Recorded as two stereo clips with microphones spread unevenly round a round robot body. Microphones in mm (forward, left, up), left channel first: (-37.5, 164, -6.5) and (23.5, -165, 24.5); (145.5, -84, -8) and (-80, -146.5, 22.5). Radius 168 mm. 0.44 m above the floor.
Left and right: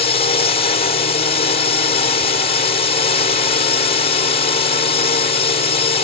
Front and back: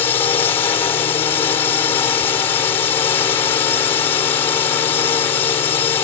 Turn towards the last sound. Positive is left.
turn(degrees=70)